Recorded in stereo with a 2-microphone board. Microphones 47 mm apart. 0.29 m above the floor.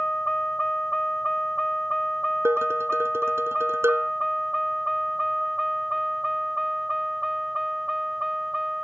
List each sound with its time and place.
0.0 s a vehicle: 15° left (ahead or behind); by 8.8 s 5° right (ahead or behind)
2.5 s dishes clattering: 65° right (ahead or behind)